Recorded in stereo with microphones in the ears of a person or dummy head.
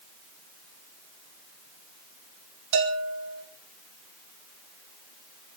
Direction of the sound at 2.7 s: 65° right (ahead or behind).